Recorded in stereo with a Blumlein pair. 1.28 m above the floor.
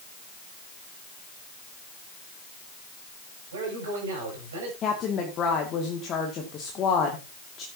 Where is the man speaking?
65° right, 8.5 m.